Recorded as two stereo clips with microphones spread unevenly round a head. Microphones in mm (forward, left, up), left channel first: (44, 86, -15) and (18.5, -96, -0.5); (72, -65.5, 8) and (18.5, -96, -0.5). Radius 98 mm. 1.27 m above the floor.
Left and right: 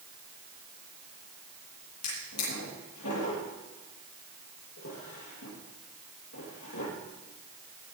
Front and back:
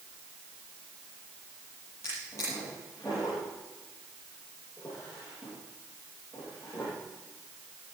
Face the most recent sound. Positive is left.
turn(degrees=105)